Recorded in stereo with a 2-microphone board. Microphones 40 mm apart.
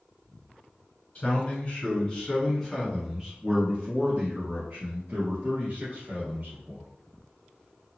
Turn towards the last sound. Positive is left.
turn(degrees=-55)  # may be behind; listen again after turning